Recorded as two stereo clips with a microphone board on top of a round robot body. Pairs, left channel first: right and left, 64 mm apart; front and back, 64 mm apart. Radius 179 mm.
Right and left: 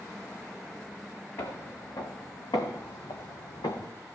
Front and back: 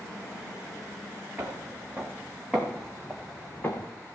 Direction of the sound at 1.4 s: 115° right.